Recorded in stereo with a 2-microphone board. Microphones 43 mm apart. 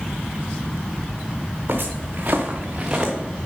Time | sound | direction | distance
1.7 | footsteps | 50° right (ahead or behind) | 2.0 m